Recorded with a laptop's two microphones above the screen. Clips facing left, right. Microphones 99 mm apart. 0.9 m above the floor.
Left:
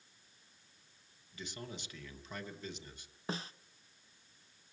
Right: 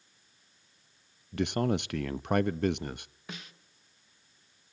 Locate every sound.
1.3 s a man speaking: 65° right (ahead or behind), 0.6 m
3.3 s a snare drum: 30° left (ahead or behind), 0.9 m